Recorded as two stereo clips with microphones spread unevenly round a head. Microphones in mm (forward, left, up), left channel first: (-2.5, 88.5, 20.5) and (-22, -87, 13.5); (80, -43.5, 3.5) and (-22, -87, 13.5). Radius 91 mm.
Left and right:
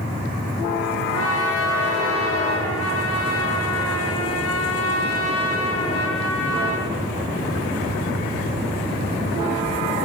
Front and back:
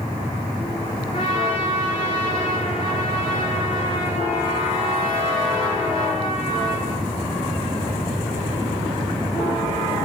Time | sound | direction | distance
1.1 | a trumpet | 90° left | 4 m